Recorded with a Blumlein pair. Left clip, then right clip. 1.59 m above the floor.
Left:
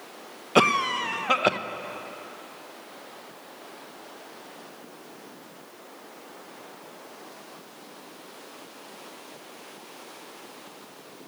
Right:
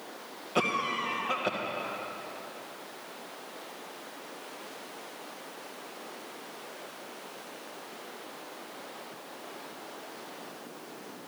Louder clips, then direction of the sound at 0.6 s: Left 8 dB; 60° left.